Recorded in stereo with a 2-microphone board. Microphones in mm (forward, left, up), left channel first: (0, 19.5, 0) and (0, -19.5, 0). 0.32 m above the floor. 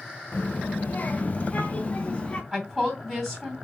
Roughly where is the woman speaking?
Centre.